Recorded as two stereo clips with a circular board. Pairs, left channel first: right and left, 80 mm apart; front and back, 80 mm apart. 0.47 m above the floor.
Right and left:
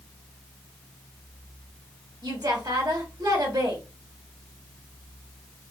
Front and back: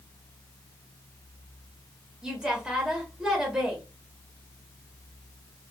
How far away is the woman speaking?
About 1.3 m.